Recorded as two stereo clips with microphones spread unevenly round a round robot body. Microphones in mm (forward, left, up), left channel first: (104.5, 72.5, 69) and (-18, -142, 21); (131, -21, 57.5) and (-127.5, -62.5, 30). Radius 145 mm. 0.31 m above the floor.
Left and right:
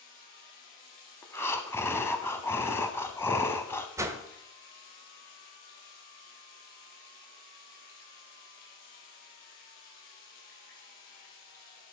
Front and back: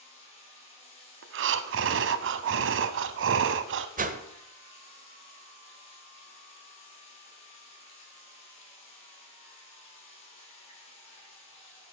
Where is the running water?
60° left, 7 m.